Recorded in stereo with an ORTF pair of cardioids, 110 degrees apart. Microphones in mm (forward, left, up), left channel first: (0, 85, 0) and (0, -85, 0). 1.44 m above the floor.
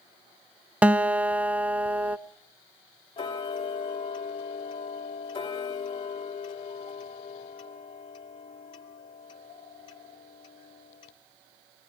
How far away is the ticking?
About 2.5 m.